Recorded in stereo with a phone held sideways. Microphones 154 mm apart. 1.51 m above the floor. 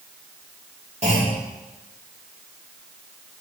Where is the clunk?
45° right (ahead or behind), 3 m.